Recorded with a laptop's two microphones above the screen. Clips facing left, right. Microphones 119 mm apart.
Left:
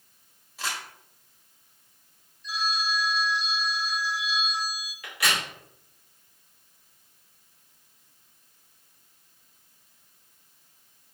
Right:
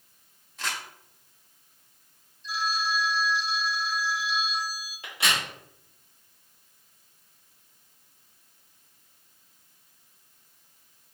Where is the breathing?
I don't hear breathing.